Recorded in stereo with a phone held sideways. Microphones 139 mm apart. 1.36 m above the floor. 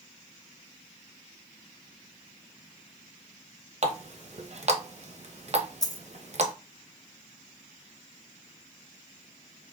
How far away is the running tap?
About 0.7 m.